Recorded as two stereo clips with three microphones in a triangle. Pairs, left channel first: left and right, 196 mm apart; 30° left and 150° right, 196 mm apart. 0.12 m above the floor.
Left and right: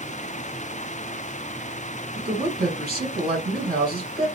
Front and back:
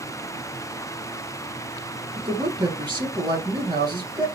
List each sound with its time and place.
2.2 s a man speaking: 90° right, 2.5 m